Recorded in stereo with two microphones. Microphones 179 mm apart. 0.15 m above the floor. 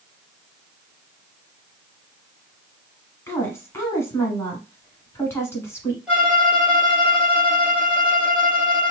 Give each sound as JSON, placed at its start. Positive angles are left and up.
{"t": 3.3, "sound": "a woman speaking", "side_deg": 15, "distance_m": 1.2}
{"t": 6.1, "sound": "a violin", "side_deg": -5, "distance_m": 1.1}